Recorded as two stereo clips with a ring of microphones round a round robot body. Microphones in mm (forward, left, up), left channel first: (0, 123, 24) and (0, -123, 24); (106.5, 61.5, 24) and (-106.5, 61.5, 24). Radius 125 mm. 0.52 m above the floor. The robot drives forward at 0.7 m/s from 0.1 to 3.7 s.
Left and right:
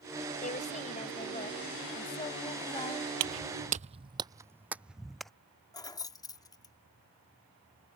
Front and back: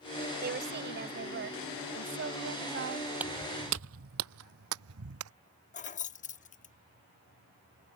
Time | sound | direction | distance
0.4 | a woman speaking | 145° left | ?
3.2 | footsteps | 95° right | ?
5.7 | keys jangling | 25° left | ?